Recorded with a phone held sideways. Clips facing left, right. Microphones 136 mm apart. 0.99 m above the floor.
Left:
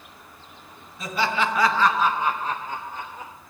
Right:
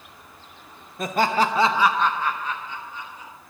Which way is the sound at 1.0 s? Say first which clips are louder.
Right 3 dB; 55° right (ahead or behind).